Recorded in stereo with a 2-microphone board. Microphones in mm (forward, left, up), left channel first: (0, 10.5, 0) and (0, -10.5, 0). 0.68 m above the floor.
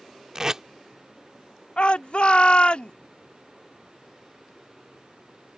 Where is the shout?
60° left (ahead or behind).